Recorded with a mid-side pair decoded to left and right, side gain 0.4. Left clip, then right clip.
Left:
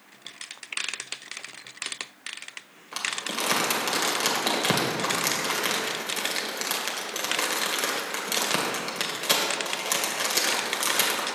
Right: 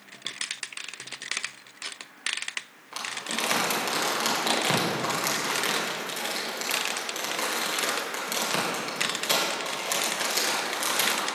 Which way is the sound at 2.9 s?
25° left.